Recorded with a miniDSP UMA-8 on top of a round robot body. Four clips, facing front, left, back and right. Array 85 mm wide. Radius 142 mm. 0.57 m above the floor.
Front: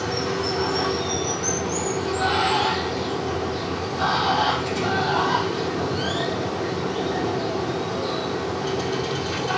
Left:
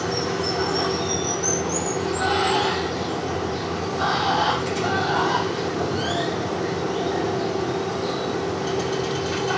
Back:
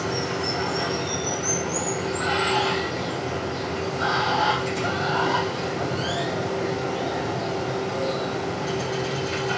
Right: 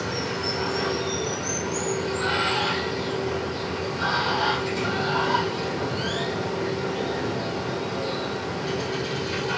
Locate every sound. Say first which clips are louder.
0.0 s running water: left 4 dB, front 2 dB; 45° left, 3 m